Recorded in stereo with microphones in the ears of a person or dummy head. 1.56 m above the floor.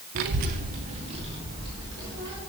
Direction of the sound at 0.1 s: 50° right (ahead or behind).